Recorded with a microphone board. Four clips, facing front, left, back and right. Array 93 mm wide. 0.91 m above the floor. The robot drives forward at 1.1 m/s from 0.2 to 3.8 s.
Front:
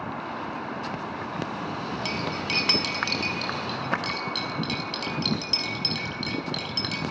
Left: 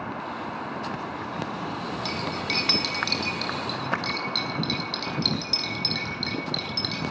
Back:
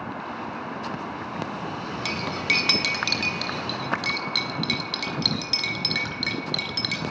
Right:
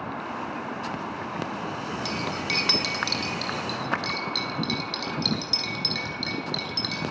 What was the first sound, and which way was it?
Cutlery clinking, 175° right.